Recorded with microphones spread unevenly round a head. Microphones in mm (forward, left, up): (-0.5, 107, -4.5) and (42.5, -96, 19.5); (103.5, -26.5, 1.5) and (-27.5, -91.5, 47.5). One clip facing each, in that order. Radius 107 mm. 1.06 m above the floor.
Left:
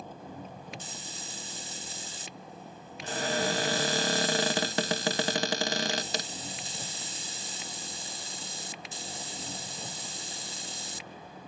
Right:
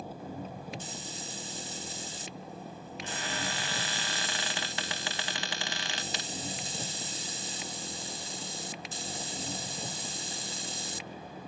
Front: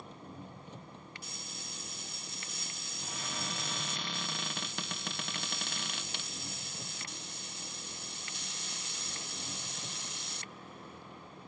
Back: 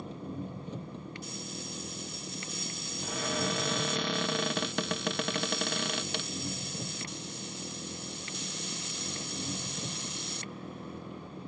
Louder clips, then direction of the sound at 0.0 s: Right 3 dB, back 9 dB; 160° right.